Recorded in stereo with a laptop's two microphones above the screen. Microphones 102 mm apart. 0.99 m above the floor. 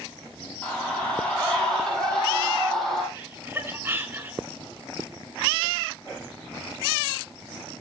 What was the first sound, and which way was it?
A scream, 15° left (ahead or behind).